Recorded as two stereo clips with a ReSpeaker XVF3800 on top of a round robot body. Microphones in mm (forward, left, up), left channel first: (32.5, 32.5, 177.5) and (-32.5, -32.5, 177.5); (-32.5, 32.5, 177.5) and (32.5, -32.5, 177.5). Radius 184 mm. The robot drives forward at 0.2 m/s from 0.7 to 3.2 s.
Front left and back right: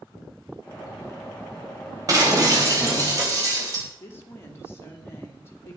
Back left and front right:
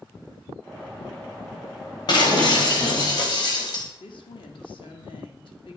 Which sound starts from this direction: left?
A woman speaking, at 4.0 s.